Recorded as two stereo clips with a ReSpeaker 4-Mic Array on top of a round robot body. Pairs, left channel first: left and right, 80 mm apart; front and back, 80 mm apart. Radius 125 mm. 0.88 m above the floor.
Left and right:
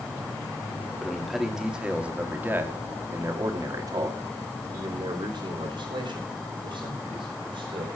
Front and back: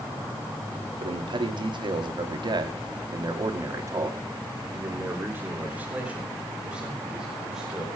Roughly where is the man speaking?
Behind.